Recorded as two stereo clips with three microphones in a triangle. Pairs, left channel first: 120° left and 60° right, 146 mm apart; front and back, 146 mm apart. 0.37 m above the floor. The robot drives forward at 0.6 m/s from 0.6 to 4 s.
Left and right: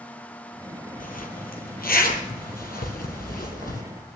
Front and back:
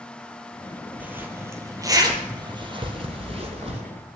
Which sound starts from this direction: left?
A zipper, at 1.0 s.